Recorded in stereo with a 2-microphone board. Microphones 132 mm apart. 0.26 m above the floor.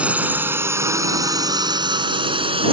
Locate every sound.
0.0 s a drone: 10° right (ahead or behind); by 2.7 s 45° right (ahead or behind)